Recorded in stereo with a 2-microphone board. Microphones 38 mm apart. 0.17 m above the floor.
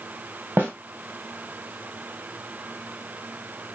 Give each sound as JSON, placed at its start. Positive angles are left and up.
{"t": 0.6, "sound": "a snare drum", "side_deg": -65, "distance_m": 3.5}